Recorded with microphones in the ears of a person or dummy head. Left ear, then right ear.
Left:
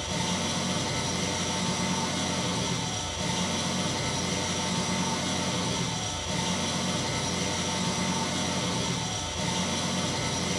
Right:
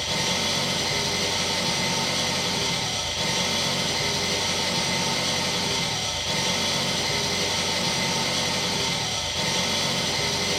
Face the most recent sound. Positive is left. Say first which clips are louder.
# right 6 dB
turn(degrees=-35)  # may be behind; listen again after turning